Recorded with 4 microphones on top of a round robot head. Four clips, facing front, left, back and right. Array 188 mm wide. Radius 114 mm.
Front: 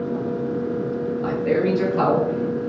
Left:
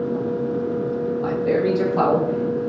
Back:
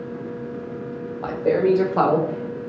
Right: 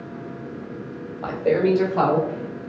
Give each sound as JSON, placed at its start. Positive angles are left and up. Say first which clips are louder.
{"t": 1.2, "sound": "a man speaking", "louder": "right 2 dB, back 3 dB", "azimuth_deg": -145, "distance_m": 1.6}